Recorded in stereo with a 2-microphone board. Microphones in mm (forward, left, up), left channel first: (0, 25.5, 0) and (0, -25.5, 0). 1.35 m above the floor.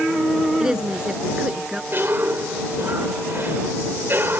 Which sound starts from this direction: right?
A cough, at 1.9 s.